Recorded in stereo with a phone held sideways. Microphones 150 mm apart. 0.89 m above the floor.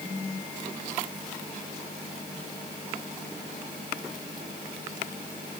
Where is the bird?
I don't hear a bird.